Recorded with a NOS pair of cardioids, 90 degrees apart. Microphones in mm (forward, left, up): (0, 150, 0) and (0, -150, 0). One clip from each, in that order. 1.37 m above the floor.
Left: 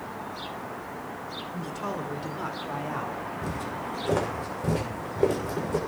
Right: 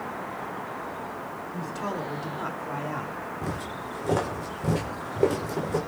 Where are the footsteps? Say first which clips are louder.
Left 1 dB; 10° right, 5.5 m.